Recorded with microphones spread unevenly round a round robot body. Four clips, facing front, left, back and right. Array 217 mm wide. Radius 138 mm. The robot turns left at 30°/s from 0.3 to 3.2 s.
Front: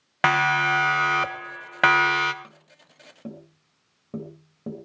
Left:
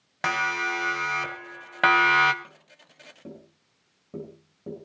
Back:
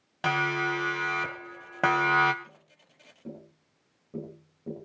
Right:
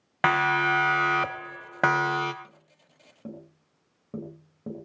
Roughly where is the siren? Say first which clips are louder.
Right 5 dB, front 7 dB; ahead.